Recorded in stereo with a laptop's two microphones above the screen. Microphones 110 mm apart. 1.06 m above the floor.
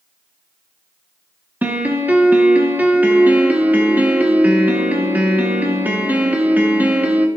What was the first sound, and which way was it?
A piano, 15° right (ahead or behind).